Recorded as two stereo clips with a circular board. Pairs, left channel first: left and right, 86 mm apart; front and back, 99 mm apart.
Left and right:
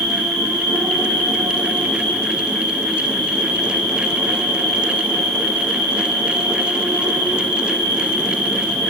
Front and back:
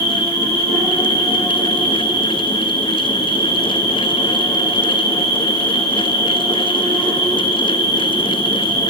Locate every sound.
0.0 s an insect: 125° right, 2.5 m